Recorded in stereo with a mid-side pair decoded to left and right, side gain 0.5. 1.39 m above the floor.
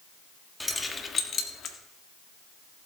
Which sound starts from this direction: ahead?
Keys jangling, at 0.6 s.